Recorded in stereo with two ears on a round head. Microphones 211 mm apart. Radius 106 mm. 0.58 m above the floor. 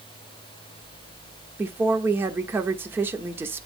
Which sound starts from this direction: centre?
A woman speaking, at 1.6 s.